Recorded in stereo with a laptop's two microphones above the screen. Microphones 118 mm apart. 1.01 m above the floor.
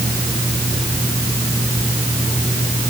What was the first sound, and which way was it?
Only background noise.